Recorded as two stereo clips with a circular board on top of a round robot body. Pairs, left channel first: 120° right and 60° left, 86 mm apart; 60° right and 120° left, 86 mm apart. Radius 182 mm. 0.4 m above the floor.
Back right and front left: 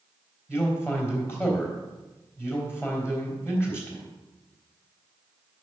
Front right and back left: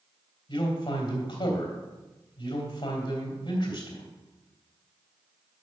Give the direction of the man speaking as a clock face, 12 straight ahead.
2 o'clock.